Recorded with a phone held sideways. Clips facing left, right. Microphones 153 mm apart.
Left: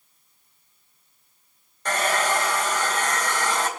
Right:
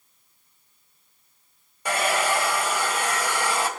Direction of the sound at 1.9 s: 10° right (ahead or behind).